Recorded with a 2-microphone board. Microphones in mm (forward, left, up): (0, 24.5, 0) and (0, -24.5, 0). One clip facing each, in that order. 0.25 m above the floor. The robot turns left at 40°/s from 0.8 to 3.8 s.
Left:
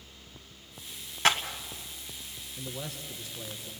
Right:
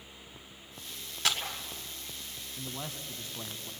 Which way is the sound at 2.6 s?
20° right.